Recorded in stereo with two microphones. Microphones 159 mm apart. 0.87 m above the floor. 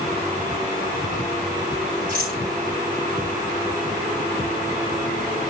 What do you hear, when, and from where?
2.1 s a rattle: 60° right (ahead or behind), 8.5 m